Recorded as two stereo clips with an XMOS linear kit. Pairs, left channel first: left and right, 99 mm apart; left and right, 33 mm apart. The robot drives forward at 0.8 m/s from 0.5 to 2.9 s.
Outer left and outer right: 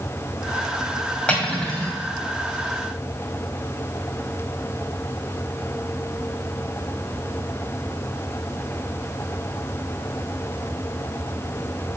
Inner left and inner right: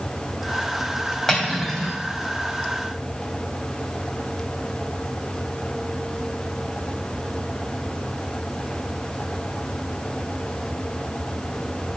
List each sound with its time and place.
1.3 s cutlery clinking: 10° left (ahead or behind), 2.5 m